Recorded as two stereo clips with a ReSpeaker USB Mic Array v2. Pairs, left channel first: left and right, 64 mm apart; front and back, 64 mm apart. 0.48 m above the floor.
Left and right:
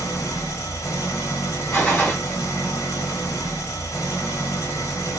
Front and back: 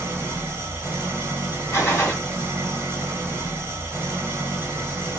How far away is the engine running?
About 1.1 m.